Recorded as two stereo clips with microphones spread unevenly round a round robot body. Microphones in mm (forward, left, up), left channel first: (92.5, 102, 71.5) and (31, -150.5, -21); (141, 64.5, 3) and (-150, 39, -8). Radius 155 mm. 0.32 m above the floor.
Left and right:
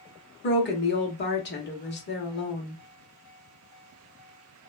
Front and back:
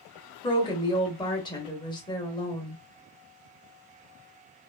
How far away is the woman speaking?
About 0.9 m.